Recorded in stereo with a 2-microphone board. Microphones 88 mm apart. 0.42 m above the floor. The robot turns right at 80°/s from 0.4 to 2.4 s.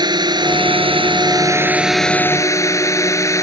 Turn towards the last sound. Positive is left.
turn(degrees=35)